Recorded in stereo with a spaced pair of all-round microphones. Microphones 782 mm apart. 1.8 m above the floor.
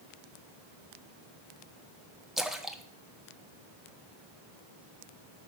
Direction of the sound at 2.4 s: Centre (ahead or behind).